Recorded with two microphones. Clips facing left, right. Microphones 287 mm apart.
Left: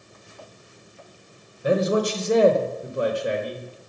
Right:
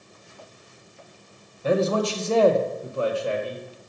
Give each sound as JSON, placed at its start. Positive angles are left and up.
{"t": 1.6, "sound": "a man speaking", "side_deg": 15, "distance_m": 1.0}